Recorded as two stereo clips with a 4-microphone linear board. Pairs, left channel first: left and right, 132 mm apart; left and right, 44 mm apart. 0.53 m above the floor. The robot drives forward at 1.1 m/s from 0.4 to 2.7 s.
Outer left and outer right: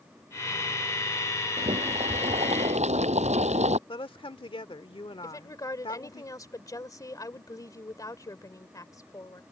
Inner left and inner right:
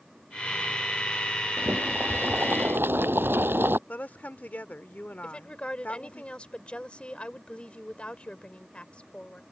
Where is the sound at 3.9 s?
40° left (ahead or behind).